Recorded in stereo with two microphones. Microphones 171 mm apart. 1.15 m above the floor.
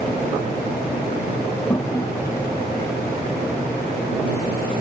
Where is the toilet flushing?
20° left (ahead or behind).